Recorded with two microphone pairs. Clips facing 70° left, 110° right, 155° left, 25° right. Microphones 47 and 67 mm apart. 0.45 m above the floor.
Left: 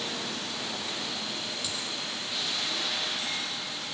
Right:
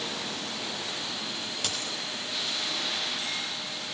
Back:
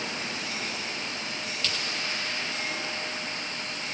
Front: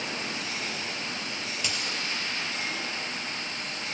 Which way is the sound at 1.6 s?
100° right.